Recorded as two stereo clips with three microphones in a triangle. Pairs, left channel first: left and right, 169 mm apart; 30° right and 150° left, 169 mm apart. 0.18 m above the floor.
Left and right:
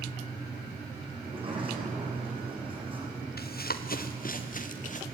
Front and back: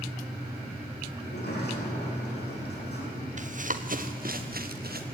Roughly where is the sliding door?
Ahead right.